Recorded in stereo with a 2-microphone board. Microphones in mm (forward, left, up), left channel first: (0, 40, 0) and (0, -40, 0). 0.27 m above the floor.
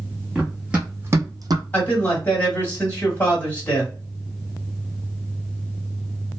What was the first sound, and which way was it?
Running footsteps, 5° right (ahead or behind).